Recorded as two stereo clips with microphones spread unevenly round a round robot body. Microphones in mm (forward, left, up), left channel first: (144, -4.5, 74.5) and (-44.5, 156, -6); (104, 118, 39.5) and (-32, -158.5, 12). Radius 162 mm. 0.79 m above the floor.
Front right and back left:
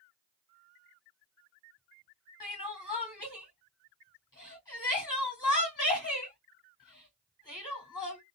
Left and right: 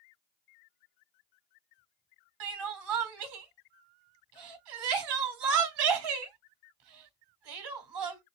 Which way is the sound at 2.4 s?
120° right.